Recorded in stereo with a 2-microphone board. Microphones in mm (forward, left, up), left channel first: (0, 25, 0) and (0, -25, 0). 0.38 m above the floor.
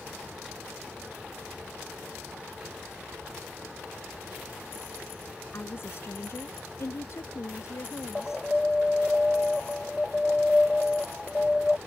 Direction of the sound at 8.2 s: 5° left (ahead or behind).